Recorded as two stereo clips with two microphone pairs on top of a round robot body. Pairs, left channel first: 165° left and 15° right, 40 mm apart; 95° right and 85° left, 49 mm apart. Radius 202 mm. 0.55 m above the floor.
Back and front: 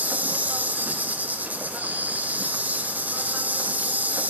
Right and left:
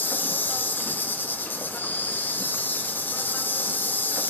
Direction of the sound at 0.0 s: 50° right.